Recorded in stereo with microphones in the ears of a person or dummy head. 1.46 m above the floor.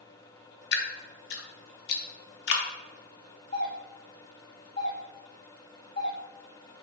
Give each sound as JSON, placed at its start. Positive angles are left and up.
{"t": 0.7, "sound": "dripping", "side_deg": 55, "distance_m": 0.6}
{"t": 3.5, "sound": "a doorbell", "side_deg": 40, "distance_m": 1.7}